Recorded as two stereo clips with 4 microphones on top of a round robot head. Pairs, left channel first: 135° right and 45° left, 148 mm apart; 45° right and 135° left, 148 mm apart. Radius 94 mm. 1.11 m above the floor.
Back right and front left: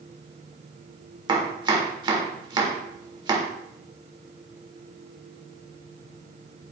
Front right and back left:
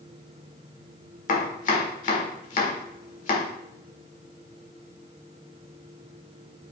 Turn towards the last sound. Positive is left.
turn(degrees=-15)